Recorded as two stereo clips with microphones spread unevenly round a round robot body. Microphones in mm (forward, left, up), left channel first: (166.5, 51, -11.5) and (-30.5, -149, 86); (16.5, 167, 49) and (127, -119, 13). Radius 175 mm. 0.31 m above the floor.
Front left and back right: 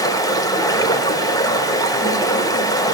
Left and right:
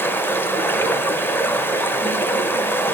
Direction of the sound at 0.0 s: 25° left.